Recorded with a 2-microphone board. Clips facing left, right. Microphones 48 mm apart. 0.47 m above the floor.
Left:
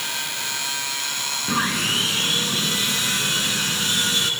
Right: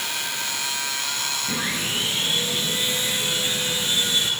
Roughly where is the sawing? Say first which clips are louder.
Left 7 dB; left.